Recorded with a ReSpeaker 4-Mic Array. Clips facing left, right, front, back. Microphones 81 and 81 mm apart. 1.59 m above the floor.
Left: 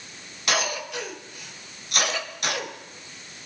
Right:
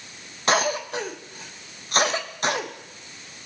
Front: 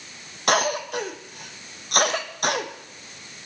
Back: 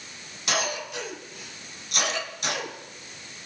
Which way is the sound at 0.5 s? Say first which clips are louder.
Right 5 dB, front 7 dB; 35° right.